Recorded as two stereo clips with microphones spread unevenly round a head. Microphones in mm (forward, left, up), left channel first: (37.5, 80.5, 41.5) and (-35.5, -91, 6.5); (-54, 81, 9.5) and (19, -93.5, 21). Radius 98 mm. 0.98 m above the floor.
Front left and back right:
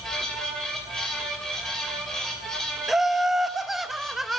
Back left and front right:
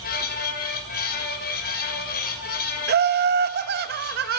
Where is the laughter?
25° right, 0.9 m.